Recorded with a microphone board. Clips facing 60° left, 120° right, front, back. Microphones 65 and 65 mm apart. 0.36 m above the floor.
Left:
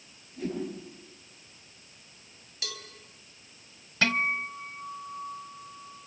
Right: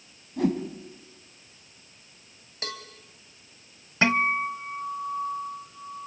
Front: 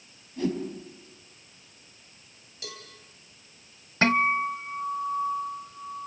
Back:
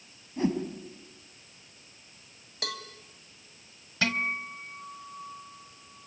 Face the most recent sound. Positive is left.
turn(degrees=-55)